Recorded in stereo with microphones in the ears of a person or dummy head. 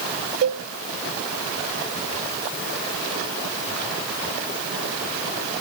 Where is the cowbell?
50° right (ahead or behind), 1.5 m.